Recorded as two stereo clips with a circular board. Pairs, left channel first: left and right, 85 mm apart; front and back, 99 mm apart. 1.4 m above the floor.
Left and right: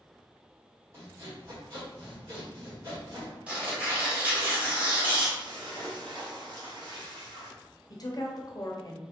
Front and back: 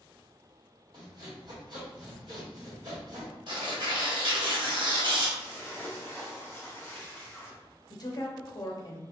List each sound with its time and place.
0.9 s sawing: 140° right, 1.6 m
3.5 s tearing paper: 160° right, 1.4 m
5.4 s a splash: 65° right, 0.8 m
7.9 s a woman speaking: 45° left, 0.6 m